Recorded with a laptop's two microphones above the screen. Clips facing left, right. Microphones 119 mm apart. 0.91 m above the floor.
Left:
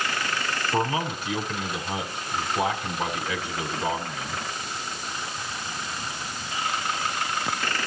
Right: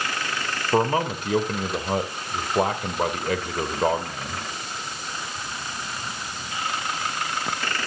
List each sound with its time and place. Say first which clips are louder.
0.7 s a man speaking: right 5 dB; 50° right (ahead or behind), 3 m